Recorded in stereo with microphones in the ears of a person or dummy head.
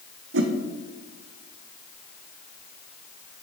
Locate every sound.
0.3 s a whoosh: 65° right (ahead or behind), 1.2 m